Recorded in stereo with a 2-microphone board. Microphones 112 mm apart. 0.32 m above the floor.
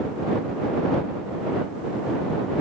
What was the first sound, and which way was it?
Only background noise.